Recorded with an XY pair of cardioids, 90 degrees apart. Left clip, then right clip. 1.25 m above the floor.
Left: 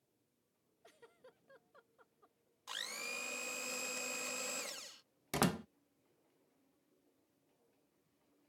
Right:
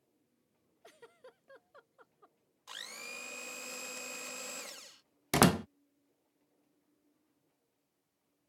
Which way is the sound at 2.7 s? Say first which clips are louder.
Left 2 dB; 15° left.